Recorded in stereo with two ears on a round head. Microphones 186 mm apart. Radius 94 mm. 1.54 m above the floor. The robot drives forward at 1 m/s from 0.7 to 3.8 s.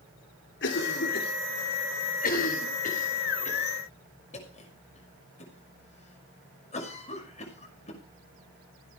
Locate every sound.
0.6 s a cough: 65° left (ahead or behind), 3.5 m; by 8.0 s 35° left (ahead or behind), 6 m